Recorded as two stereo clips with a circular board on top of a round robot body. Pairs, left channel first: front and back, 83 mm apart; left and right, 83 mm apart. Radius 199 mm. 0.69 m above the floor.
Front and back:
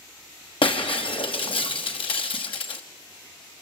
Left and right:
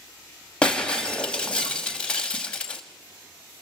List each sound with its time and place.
0.6 s breaking glass: 10° left, 0.8 m